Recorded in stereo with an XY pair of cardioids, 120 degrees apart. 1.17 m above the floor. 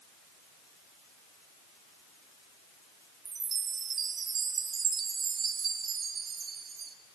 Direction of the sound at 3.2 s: 50° right.